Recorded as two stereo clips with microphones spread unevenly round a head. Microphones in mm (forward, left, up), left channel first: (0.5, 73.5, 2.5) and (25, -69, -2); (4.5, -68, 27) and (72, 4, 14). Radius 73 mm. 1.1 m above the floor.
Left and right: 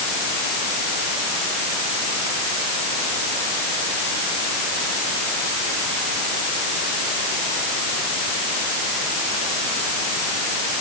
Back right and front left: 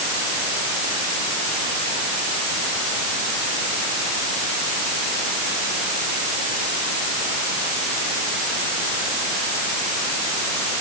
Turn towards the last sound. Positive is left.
No sound to turn to.